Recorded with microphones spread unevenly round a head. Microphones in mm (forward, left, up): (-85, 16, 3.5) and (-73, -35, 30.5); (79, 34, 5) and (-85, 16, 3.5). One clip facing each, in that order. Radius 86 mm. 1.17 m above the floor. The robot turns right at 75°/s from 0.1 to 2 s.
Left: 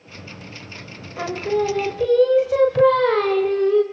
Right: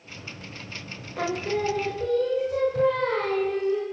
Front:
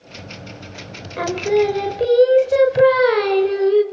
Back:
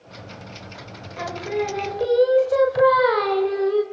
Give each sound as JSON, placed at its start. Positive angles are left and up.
{"t": 1.2, "sound": "singing", "azimuth_deg": 0, "distance_m": 1.4}